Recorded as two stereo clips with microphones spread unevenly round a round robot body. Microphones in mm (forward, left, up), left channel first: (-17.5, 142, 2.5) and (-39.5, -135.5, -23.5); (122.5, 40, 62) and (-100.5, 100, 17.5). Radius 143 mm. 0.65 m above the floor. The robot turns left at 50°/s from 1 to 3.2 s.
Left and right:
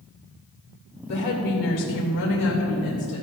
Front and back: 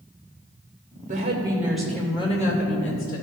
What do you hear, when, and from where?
1.1 s a woman speaking: 115° left, 2.5 m; by 3.2 s 10° left, 2.5 m